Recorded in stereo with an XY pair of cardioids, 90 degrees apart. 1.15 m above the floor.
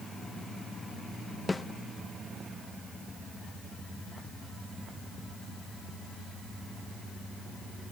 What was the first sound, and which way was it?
A snare drum, 25° left.